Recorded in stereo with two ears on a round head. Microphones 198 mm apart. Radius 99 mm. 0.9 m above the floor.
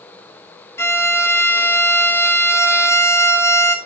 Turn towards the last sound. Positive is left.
turn(degrees=10)  # may be behind; listen again after turning